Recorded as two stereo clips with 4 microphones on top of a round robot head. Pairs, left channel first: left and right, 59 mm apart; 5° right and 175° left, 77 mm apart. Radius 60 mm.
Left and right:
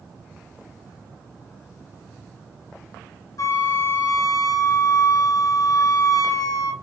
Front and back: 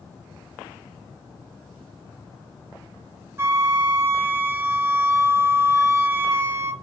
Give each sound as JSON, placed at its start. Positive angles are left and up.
{"t": 3.4, "sound": "a flute", "azimuth_deg": 115, "distance_m": 0.6}